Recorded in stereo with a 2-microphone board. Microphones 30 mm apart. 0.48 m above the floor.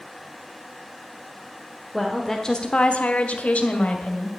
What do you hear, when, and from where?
1.9 s a woman speaking: 5° right (ahead or behind), 1.5 m; by 4.3 s 50° left (ahead or behind), 3 m